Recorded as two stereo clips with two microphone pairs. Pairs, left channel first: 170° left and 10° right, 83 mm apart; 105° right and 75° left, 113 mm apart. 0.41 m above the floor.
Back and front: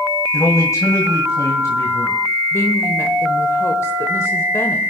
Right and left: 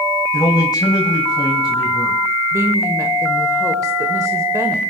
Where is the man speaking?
150° right, 1.9 m.